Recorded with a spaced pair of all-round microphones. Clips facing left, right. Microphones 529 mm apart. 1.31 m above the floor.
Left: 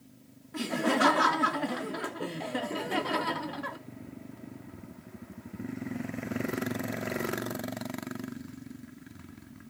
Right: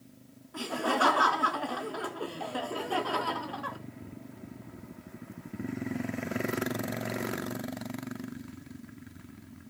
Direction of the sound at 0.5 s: 50° left (ahead or behind).